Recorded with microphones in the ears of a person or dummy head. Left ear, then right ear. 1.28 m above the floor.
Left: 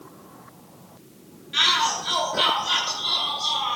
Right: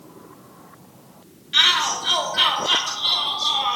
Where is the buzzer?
I don't hear a buzzer.